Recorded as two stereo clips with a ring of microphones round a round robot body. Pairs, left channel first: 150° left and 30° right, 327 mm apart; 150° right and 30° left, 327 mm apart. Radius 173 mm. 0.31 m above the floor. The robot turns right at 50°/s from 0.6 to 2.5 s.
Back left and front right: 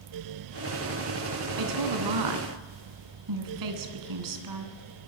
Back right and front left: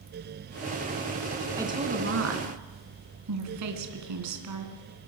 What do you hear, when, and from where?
1.6 s a woman speaking: 55° right, 3 m; by 4.8 s 5° right, 3 m